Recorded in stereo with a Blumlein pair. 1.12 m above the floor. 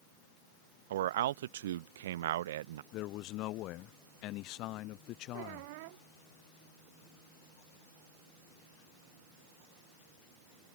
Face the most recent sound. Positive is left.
turn(degrees=-50)